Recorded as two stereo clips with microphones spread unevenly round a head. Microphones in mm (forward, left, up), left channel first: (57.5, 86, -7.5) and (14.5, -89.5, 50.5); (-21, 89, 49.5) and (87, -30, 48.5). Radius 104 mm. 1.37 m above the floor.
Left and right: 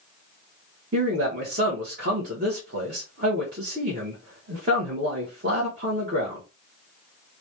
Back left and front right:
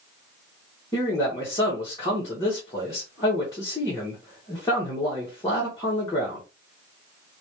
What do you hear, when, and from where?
0.9 s a man speaking: 155° right, 1.3 m